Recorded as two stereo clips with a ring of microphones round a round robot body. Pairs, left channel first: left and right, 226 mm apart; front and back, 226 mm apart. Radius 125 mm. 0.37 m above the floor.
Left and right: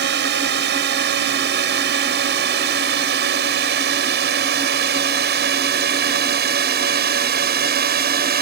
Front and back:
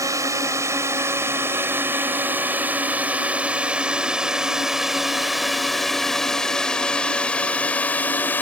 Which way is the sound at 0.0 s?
105° right.